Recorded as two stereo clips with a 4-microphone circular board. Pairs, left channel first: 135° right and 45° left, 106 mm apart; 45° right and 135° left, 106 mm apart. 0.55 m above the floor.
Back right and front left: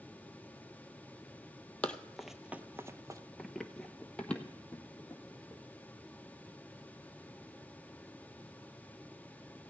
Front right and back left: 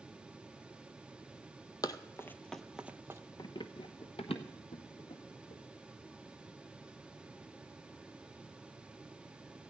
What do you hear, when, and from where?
1.8 s running footsteps: 65° right, 0.6 m; by 3.2 s 85° left, 0.7 m
3.4 s running footsteps: 50° right, 0.6 m; by 5.6 s 60° right, 2 m